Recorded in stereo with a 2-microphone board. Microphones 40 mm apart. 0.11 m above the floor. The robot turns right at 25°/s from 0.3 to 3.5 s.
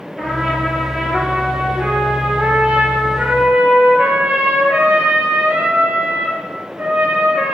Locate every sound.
0.2 s a trumpet: 175° left, 2.5 m; by 7.5 s 105° right, 2.5 m